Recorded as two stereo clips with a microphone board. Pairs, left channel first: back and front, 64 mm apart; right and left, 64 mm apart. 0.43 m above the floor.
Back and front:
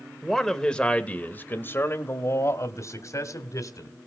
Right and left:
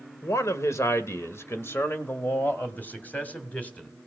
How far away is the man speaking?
About 1.4 m.